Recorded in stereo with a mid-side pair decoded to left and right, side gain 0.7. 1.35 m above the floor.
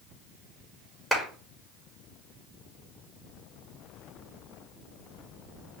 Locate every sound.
1.1 s a clap: straight ahead, 2.5 m